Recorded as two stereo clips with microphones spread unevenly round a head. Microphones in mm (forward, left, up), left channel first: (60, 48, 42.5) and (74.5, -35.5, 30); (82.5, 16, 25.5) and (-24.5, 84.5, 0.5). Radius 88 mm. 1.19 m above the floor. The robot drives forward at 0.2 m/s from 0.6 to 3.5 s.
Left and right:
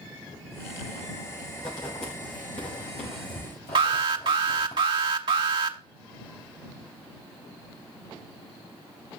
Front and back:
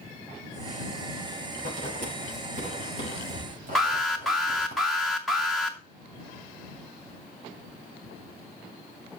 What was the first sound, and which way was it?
Writing, 135° left.